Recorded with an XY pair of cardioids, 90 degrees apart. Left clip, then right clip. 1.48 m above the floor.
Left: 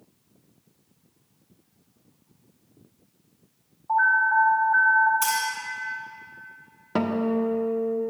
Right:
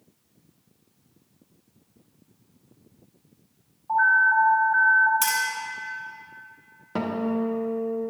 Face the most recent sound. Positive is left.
turn(degrees=35)